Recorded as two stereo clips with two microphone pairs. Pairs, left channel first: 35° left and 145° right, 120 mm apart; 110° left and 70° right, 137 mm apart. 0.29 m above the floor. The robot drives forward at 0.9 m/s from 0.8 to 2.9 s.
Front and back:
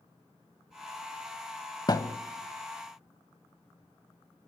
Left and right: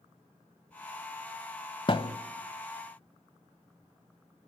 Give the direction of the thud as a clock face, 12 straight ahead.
9 o'clock.